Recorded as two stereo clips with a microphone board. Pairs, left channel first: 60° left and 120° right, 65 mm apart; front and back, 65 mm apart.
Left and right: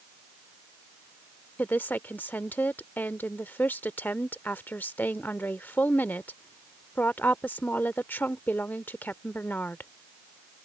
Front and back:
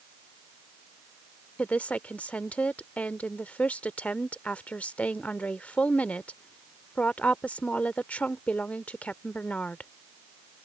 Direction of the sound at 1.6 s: 45° left.